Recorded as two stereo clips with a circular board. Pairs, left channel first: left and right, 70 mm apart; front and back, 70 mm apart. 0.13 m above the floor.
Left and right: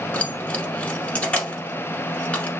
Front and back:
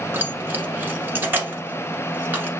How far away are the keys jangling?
About 1.1 m.